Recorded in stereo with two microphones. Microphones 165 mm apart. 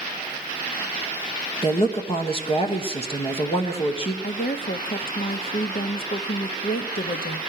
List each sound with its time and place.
1.6 s a woman speaking: 35° left (ahead or behind), 1.1 m
4.2 s a woman speaking: 65° left (ahead or behind), 0.7 m